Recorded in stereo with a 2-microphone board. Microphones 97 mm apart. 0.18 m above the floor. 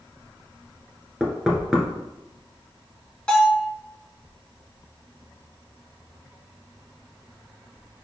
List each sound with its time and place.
1.2 s knocking: 5° right (ahead or behind), 1.8 m
3.3 s a bell: 10° left (ahead or behind), 2 m